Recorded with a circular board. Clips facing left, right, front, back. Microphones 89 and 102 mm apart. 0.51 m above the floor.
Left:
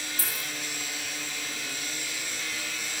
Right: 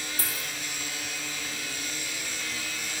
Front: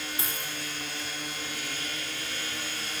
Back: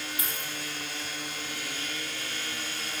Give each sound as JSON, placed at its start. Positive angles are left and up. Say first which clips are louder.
{"t": 0.2, "sound": "a dropped coin", "louder": "even, front 1 dB", "azimuth_deg": -60, "distance_m": 4.0}